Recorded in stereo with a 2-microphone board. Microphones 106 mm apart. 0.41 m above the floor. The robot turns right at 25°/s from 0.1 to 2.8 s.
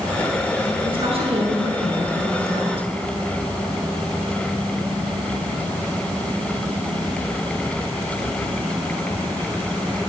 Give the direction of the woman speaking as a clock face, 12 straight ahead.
4 o'clock.